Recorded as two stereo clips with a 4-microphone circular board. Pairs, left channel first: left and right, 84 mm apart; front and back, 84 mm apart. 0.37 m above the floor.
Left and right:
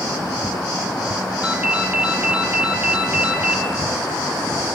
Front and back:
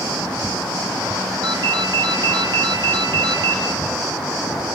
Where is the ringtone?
160° right, 1.0 m.